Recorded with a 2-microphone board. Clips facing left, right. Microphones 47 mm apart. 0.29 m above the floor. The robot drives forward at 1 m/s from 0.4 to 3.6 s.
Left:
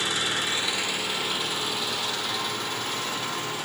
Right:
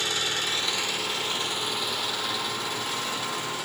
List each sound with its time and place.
0.0 s an engine running: 15° left (ahead or behind), 0.9 m; by 3.7 s 5° left (ahead or behind), 4 m